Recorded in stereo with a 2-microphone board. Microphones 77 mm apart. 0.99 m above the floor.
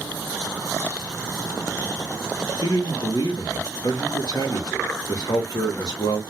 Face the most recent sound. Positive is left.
turn(degrees=60)  # may be behind; listen again after turning